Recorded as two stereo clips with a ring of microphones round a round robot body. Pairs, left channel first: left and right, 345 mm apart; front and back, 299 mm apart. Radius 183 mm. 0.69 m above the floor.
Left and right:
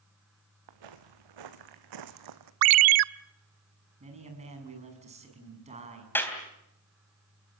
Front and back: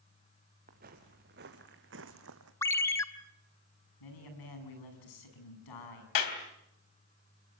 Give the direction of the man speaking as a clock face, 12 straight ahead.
1 o'clock.